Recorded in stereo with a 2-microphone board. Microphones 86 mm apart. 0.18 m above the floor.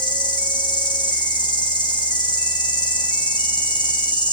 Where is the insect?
60° left (ahead or behind), 3 m.